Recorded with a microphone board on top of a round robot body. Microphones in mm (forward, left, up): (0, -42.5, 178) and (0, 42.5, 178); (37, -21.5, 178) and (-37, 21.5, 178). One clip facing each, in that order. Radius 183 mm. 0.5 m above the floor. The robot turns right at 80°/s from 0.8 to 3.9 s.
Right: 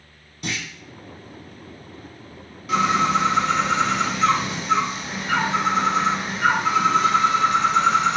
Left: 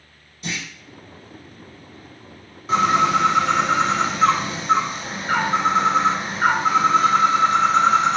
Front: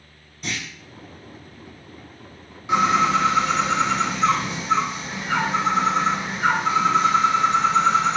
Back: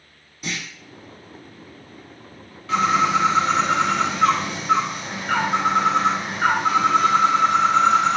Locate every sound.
0.4 s a clunk: 125° right, 1.0 m
2.7 s a bird: 40° left, 1.2 m; by 8.2 s 135° left, 1.2 m